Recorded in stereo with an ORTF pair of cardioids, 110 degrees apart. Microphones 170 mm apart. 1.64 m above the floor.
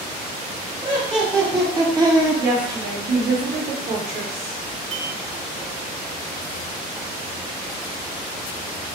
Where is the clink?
40° right, 1.5 m.